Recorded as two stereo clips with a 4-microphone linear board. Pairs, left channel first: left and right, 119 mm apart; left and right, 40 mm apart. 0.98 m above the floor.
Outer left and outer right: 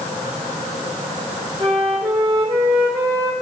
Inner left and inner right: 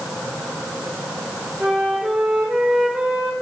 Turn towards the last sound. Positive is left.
turn(degrees=-30)  # may be behind; listen again after turning